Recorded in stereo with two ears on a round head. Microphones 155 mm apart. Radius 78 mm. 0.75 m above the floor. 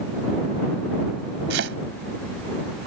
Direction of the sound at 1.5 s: 70° right (ahead or behind).